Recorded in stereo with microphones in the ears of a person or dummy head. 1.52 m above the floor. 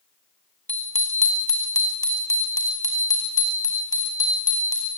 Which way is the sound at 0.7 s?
10° left (ahead or behind).